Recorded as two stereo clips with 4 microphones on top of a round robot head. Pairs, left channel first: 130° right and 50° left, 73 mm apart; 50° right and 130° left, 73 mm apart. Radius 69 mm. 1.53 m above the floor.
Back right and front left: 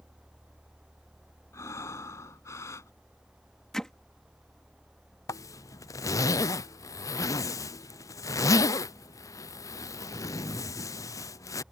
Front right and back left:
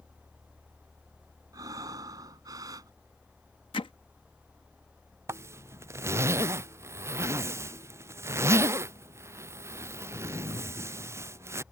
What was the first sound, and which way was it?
Breathing, 175° left.